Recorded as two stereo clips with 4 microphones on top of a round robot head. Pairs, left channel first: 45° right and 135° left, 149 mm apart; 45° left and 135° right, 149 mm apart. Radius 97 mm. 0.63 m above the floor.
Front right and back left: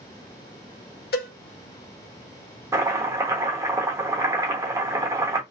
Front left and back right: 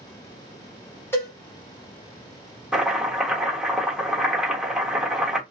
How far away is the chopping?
About 1.2 m.